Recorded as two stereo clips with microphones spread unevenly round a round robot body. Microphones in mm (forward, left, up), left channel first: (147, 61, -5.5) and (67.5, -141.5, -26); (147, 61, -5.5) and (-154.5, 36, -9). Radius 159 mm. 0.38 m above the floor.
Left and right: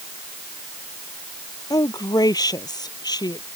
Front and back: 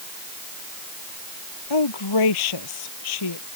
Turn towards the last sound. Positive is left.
turn(degrees=-5)